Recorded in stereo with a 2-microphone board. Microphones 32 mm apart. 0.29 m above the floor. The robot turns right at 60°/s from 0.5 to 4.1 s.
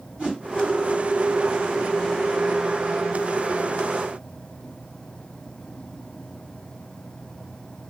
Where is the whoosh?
50° right (ahead or behind), 2 m.